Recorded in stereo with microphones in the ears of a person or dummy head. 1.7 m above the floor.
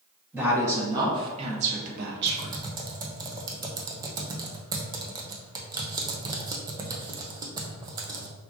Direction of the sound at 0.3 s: 15° right (ahead or behind).